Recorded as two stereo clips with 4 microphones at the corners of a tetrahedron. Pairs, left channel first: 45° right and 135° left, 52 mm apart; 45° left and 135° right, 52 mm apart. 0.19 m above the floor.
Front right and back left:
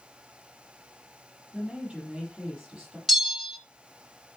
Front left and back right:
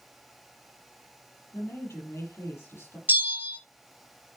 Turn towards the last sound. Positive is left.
turn(degrees=-130)